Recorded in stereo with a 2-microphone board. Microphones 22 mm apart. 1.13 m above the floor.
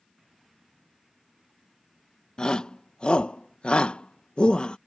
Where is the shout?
45° left (ahead or behind); by 4.8 s 50° left (ahead or behind).